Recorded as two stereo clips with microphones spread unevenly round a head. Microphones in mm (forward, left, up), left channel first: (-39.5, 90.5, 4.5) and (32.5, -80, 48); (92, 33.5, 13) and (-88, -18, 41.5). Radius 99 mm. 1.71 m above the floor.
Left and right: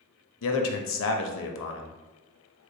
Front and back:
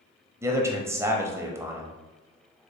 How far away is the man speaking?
About 0.6 m.